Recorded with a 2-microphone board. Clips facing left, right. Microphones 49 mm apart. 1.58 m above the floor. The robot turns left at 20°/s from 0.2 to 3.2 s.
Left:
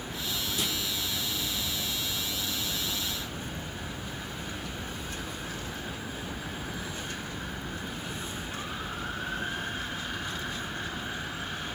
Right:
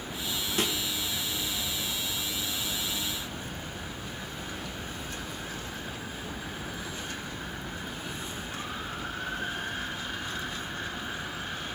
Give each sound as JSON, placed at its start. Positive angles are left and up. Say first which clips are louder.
{"t": 0.6, "sound": "a snare drum", "louder": "right 5 dB", "side_deg": -50, "distance_m": 4.5}